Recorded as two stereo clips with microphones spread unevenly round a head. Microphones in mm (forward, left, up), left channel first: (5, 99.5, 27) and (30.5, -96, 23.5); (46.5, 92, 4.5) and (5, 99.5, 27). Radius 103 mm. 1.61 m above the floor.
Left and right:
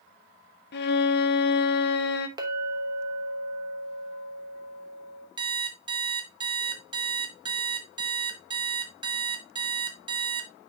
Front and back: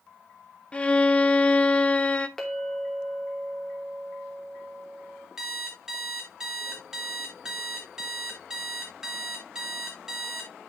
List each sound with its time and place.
0.7 s a violin: 75° left, 0.8 m
2.4 s a clink: 140° right, 0.9 m
5.4 s an alarm clock: 150° right, 0.9 m